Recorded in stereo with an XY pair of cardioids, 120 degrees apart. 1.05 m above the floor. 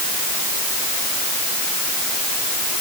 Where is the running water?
I don't hear running water.